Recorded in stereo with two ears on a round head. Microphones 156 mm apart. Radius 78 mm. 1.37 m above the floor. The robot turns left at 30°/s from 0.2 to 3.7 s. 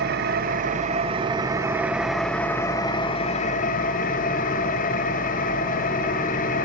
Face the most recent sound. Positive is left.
turn(degrees=135)